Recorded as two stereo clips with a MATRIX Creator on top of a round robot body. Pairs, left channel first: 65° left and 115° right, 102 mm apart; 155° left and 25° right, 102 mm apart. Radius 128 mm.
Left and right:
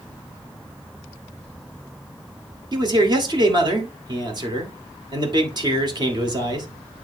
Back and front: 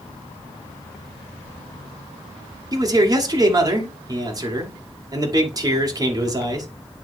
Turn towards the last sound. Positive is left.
turn(degrees=-75)